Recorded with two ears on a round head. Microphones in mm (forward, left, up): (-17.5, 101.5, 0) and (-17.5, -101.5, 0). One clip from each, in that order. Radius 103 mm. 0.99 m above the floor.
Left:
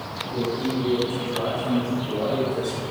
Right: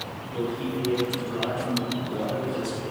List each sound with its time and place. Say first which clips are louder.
0.3 s a man speaking: left 3 dB; 10° left (ahead or behind), 8.5 m; by 2.8 s centre (ahead or behind), 10.5 m